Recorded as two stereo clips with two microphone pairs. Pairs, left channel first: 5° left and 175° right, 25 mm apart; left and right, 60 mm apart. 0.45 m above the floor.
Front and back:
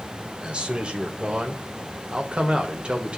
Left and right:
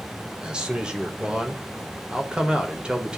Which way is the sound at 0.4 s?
155° right.